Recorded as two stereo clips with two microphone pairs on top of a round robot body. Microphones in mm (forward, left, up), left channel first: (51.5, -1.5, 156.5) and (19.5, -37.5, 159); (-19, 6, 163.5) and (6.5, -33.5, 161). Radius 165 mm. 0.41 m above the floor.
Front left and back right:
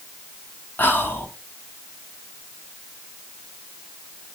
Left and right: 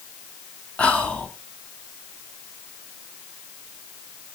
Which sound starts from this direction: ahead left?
Whispering, at 0.8 s.